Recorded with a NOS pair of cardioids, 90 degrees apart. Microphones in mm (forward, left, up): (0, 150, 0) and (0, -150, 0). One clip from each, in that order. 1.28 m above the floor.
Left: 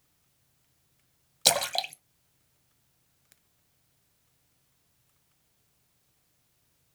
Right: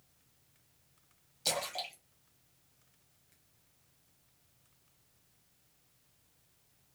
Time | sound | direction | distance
1.4 | a splash | 65° left | 0.6 m